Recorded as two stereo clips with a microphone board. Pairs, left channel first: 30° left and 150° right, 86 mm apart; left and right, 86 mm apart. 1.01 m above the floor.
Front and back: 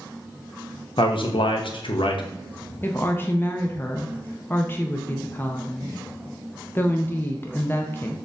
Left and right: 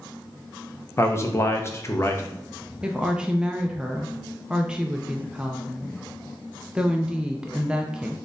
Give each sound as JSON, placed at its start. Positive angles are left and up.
{"t": 1.0, "sound": "a man speaking", "azimuth_deg": 35, "distance_m": 0.6}
{"t": 2.8, "sound": "a woman speaking", "azimuth_deg": -15, "distance_m": 0.5}